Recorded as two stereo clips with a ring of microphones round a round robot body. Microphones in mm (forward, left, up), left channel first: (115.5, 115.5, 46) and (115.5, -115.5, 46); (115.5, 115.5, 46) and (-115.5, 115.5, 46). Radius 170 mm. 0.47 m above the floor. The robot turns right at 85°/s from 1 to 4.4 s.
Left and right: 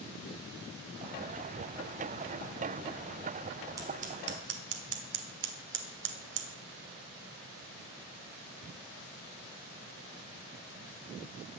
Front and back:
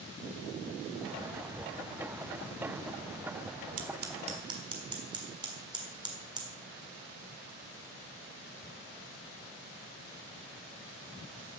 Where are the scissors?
165° right, 1.5 m; by 6.5 s 110° right, 1.5 m.